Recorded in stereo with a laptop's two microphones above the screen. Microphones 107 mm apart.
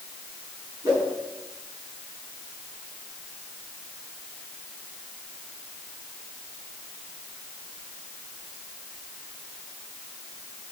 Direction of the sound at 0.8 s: 30° right (ahead or behind).